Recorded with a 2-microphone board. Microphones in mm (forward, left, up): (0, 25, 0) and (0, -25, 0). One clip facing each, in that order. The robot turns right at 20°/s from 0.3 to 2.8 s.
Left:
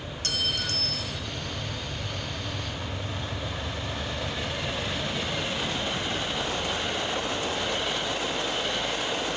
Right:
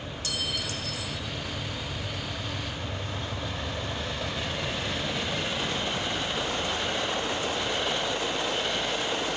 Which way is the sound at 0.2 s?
55° left (ahead or behind).